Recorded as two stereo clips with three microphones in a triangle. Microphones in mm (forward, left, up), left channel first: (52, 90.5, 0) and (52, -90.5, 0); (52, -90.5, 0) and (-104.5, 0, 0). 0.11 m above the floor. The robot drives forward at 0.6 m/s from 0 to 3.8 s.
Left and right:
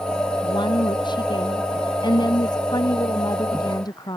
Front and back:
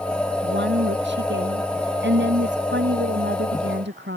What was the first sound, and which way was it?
A woman speaking, 155° left.